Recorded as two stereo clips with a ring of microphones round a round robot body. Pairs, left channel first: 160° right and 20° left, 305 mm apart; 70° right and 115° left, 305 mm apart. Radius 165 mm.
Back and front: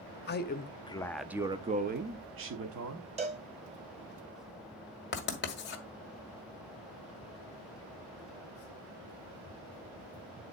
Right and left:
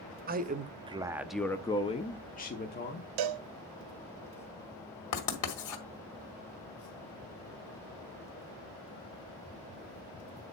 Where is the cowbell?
95° left, 0.6 m.